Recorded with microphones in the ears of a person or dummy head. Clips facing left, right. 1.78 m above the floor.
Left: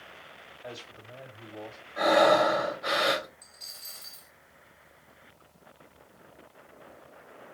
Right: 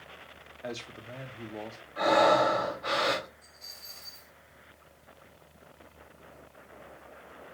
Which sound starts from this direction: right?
A man speaking, at 0.6 s.